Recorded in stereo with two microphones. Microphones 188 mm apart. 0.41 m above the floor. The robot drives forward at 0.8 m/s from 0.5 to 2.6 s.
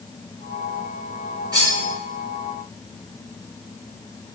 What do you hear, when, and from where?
1.5 s cutlery clinking: 20° right (ahead or behind), 3 m